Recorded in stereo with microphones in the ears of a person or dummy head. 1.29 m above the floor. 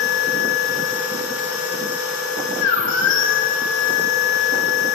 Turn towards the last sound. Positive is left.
turn(degrees=70)  # may be behind; listen again after turning